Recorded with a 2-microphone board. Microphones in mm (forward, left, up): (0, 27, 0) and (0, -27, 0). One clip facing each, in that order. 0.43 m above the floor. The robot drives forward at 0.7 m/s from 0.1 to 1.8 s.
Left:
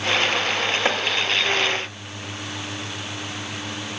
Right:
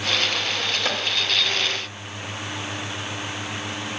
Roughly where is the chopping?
Left.